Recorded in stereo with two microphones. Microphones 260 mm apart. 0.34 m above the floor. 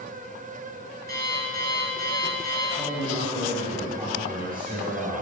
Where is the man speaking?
20° right (ahead or behind), 2.5 m.